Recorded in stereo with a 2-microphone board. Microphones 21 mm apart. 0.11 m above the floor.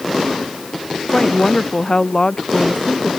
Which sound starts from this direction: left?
A woman speaking, at 1.1 s.